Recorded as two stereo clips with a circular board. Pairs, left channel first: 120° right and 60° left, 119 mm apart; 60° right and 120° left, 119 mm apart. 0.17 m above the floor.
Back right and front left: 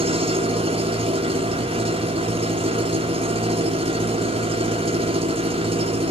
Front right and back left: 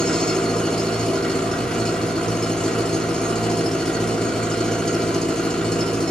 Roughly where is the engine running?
Ahead left.